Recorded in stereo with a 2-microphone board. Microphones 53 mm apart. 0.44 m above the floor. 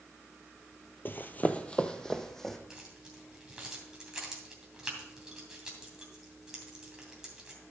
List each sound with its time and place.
1.1 s running footsteps: 45° left (ahead or behind), 0.5 m; by 2.6 s 5° left (ahead or behind), 1.2 m
2.7 s keys jangling: 10° right (ahead or behind), 2.5 m